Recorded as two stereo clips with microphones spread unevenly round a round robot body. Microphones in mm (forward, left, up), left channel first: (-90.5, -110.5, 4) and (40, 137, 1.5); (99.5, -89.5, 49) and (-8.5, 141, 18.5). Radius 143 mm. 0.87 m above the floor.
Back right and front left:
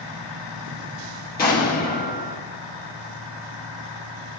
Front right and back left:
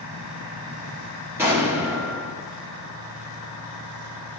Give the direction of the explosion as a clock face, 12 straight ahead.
6 o'clock.